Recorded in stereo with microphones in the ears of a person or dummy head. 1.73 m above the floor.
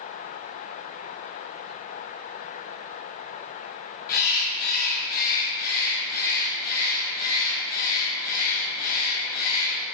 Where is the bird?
50° left (ahead or behind), 2.0 m.